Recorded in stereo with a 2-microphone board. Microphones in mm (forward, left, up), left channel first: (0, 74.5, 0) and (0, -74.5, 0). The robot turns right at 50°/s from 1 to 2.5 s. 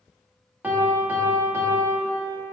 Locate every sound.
0.6 s a piano: 10° right (ahead or behind), 0.6 m; by 2.4 s 20° right (ahead or behind), 0.6 m